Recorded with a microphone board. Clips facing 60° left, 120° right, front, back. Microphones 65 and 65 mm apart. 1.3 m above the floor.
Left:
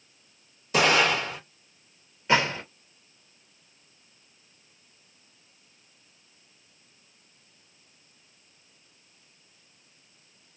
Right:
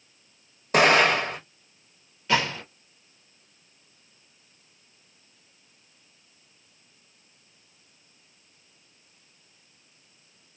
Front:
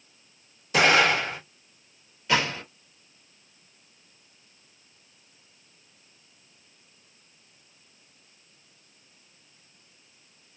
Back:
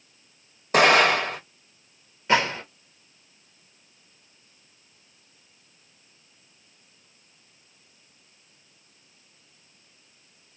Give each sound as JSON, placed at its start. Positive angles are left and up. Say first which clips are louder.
{"t": 0.7, "sound": "an explosion", "louder": "right 3 dB, back 3 dB", "azimuth_deg": -150, "distance_m": 1.1}
{"t": 2.3, "sound": "a gunshot", "louder": "left 1 dB, back 3 dB", "azimuth_deg": 125, "distance_m": 1.0}